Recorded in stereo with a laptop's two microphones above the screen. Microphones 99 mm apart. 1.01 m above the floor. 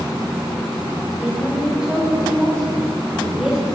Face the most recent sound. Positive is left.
turn(degrees=-10)  # may be behind; listen again after turning